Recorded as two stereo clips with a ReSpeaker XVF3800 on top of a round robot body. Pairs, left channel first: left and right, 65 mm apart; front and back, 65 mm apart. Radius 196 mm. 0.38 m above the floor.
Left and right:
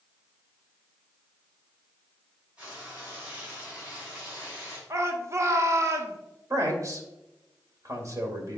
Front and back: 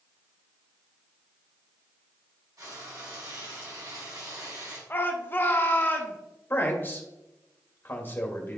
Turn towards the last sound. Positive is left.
turn(degrees=-60)